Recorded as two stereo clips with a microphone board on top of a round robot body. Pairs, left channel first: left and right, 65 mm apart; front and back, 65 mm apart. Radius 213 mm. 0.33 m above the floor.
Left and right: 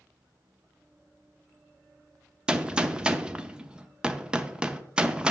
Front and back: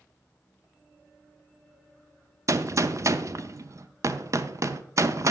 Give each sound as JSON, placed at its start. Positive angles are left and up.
{"t": 2.5, "sound": "a gunshot", "azimuth_deg": -160, "distance_m": 0.8}